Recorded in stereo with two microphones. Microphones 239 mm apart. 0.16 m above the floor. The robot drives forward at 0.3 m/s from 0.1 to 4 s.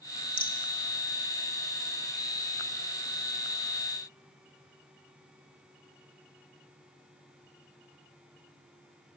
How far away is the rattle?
About 1.8 m.